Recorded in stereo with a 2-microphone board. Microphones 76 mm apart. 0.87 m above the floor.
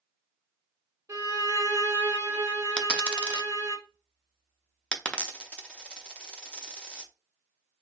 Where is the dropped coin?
15° left (ahead or behind), 0.5 m.